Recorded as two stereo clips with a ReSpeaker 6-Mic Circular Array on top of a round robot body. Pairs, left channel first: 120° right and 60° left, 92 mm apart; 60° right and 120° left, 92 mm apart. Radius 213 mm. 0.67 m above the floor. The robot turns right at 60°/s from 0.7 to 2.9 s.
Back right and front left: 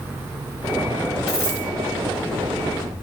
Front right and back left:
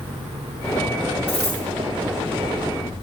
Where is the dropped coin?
65° right, 3 m; by 1.6 s 45° right, 3 m.